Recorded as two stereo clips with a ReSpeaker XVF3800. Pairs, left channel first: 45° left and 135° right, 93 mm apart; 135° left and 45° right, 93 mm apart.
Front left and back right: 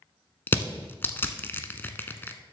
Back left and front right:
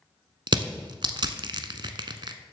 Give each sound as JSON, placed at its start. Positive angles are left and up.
{"t": 0.5, "sound": "crushing", "azimuth_deg": -20, "distance_m": 0.7}